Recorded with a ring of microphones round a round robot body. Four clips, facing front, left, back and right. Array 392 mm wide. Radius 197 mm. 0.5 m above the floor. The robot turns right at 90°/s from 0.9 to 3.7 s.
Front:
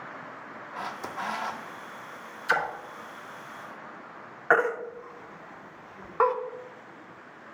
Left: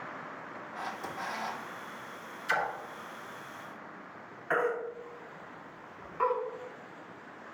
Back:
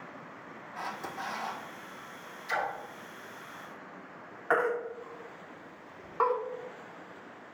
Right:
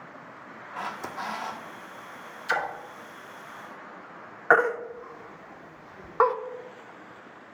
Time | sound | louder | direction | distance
0.8 | a camera shutter | right 5 dB, front 3 dB | 60° right | 0.7 m
2.5 | a splash | right 3 dB, front 5 dB | 10° right | 1.1 m
4.5 | a baby crying | right 8 dB, front 4 dB | 65° right | 0.6 m